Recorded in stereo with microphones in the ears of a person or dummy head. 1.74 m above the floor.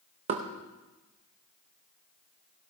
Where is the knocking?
30° right (ahead or behind), 0.7 m.